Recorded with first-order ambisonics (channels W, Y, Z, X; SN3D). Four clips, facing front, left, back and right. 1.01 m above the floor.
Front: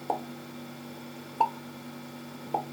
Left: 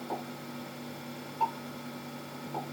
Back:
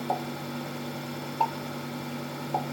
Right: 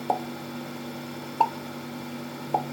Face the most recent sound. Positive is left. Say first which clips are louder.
# right 12 dB, even
turn(degrees=-85)